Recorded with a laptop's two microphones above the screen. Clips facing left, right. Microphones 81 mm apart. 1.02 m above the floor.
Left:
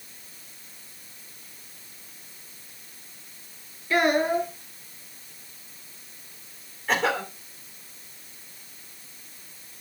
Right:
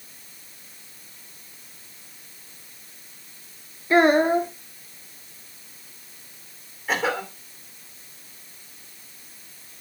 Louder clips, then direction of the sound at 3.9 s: Right 5 dB; 30° right (ahead or behind).